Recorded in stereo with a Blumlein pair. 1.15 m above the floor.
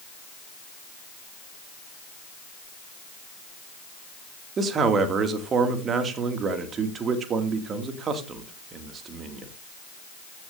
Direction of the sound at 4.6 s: 25° right.